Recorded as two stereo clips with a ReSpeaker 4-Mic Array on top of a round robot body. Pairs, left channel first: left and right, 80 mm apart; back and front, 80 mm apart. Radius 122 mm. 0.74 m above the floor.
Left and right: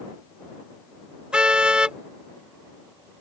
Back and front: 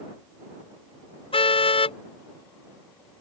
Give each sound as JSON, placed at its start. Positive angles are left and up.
{"t": 1.3, "sound": "a car horn", "azimuth_deg": -170}